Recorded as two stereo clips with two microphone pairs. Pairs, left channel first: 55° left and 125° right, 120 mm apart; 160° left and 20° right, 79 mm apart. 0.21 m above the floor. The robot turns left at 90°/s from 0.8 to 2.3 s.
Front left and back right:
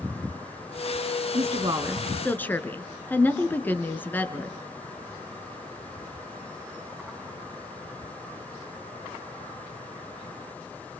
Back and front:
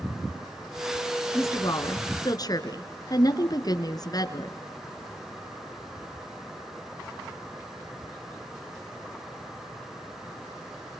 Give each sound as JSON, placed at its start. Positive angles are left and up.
{"t": 1.3, "sound": "a woman speaking", "azimuth_deg": -145, "distance_m": 2.5}